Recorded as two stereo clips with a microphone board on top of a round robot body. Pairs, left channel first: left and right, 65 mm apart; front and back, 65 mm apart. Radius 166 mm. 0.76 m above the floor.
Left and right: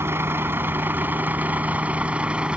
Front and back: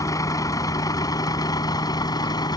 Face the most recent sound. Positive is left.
turn(degrees=-15)